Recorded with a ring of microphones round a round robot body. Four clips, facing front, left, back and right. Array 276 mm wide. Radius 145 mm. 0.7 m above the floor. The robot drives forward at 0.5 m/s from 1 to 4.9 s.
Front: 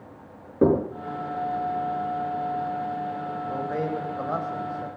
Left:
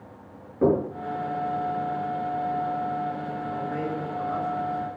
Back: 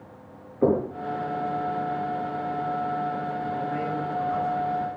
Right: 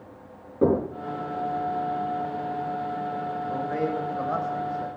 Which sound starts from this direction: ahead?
Knocking, at 0.6 s.